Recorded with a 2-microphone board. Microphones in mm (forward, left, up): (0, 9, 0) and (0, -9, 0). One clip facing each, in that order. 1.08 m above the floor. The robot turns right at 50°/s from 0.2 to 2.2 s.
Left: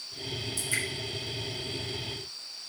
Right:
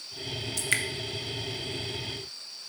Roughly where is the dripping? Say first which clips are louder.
Right 4 dB; right.